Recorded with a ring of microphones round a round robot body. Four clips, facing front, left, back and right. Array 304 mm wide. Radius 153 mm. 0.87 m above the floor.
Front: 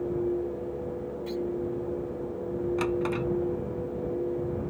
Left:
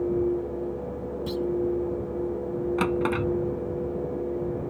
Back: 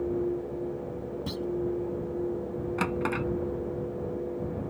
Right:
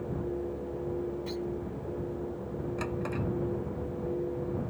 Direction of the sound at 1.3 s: 150° left.